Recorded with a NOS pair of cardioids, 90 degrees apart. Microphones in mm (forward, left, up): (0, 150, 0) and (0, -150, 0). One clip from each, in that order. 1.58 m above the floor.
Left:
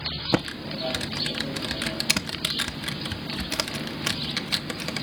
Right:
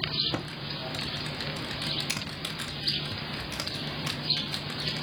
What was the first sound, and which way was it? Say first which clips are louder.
Typing on a keyboard: left 7 dB; 50° left.